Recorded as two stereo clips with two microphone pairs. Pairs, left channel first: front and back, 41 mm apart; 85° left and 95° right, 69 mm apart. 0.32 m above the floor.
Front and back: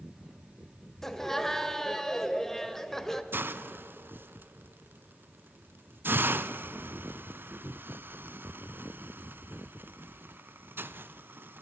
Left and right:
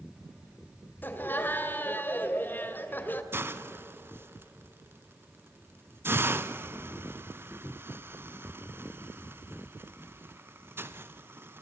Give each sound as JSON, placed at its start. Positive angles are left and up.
{"t": 1.0, "sound": "laughter", "azimuth_deg": 80, "distance_m": 1.3}
{"t": 3.3, "sound": "a hiss", "azimuth_deg": -145, "distance_m": 0.6}